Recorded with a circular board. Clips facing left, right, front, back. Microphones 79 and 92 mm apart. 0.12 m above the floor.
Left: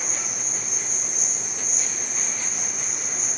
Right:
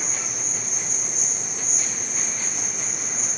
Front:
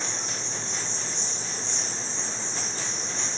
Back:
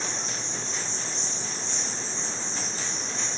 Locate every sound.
0.0 s an insect: 140° right, 1.2 m